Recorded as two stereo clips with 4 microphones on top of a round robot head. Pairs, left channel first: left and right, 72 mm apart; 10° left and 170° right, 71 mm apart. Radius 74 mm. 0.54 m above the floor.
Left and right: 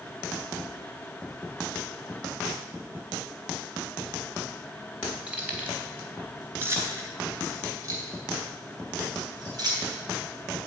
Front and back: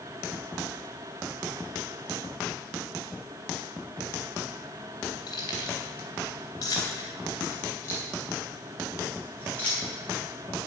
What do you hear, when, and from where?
5.3 s keys jangling: 15° right, 2.5 m; by 9.8 s 65° right, 3.5 m